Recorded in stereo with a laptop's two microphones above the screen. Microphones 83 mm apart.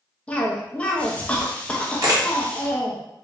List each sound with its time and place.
0.3 s a cough: 15° left (ahead or behind), 0.9 m
2.0 s a camera shutter: 45° right (ahead or behind), 0.9 m